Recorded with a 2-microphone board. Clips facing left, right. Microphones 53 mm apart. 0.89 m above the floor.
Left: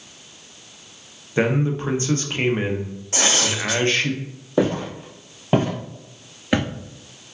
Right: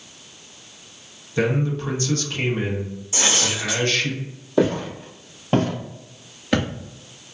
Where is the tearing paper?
70° left (ahead or behind), 1.8 m.